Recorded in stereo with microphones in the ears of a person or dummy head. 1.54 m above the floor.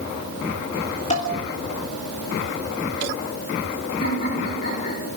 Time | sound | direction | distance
1.1 | dishes clattering | 40° left (ahead or behind) | 3 m
4.0 | laughter | 55° left (ahead or behind) | 6.5 m